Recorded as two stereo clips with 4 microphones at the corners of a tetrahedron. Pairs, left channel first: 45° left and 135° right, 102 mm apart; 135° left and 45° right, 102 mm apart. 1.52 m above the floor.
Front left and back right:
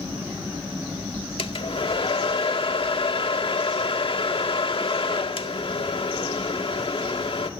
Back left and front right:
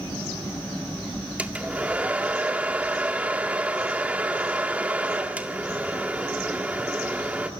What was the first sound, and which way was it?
A hair dryer, 30° left.